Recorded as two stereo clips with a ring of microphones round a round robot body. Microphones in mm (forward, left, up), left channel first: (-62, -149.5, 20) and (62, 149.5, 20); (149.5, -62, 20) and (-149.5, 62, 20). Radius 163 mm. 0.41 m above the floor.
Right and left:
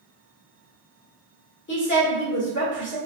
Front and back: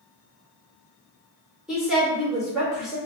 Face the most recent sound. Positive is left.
turn(degrees=-115)